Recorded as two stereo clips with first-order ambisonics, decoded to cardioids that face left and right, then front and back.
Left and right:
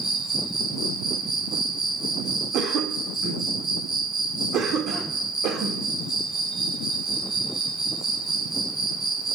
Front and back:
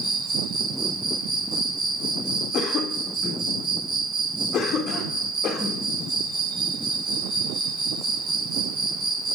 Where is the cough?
55° right, 1.5 m.